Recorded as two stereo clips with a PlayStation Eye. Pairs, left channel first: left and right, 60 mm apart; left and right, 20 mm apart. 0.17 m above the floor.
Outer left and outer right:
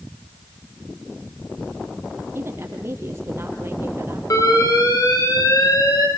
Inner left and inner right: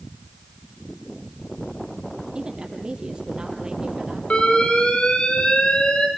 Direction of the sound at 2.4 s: 40° right (ahead or behind).